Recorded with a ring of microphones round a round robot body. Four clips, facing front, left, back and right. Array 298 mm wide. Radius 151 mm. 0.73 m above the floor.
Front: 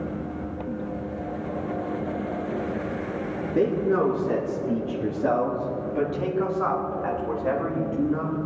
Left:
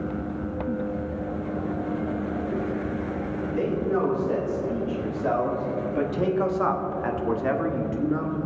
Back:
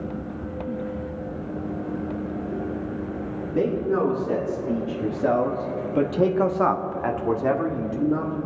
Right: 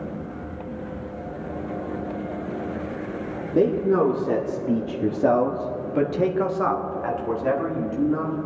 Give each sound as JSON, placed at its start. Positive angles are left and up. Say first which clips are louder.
{"t": 3.5, "sound": "a man speaking", "louder": "right 7 dB, front 1 dB", "azimuth_deg": -70, "distance_m": 2.0}